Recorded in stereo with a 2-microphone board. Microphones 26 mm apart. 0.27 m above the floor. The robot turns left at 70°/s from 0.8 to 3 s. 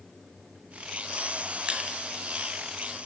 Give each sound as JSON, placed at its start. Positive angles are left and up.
{"t": 1.7, "sound": "crushing", "side_deg": -40, "distance_m": 1.9}